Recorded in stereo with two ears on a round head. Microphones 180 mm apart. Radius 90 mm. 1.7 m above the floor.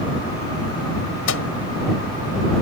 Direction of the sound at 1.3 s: 80° left.